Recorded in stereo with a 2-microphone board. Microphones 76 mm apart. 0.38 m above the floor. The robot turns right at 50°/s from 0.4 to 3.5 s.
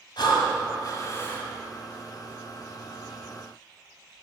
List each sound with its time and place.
0.2 s breathing: 100° left, 1.4 m; by 1.5 s 155° left, 1.4 m